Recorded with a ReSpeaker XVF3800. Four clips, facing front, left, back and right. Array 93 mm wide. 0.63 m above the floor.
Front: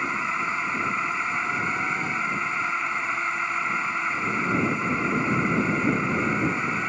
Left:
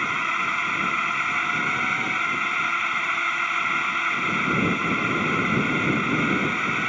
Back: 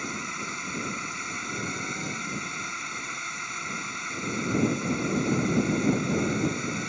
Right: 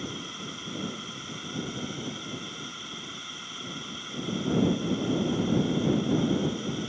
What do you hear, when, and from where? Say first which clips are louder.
0.0 s a drone: left 14 dB, front 8 dB; 55° left